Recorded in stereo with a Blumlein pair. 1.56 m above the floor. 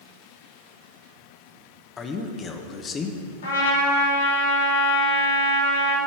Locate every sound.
2.0 s a man speaking: 20° left, 1.2 m
3.4 s a trumpet: 70° left, 4 m